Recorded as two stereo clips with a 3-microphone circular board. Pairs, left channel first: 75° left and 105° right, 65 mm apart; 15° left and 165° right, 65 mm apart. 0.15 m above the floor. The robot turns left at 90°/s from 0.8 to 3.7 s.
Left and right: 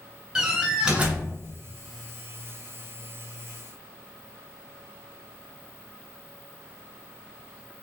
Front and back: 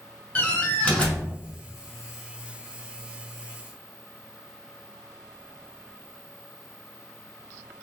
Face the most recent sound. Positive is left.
turn(degrees=65)